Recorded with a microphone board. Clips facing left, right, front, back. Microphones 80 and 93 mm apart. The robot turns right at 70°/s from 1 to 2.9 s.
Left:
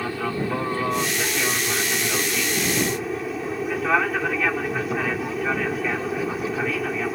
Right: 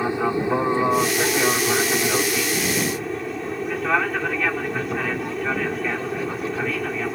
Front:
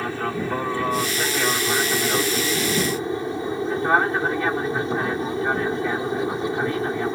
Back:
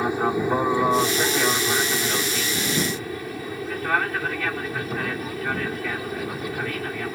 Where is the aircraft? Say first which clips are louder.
Right 4 dB, back 3 dB; 130° right; by 7.2 s 5° left.